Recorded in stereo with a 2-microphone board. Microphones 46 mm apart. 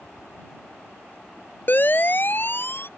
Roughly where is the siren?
Left.